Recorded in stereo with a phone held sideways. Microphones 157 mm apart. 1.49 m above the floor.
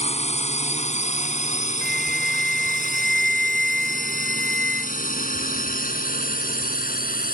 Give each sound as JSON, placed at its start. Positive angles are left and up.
{"t": 0.0, "sound": "a drone", "side_deg": 45}
{"t": 1.8, "sound": "a flute", "side_deg": -70}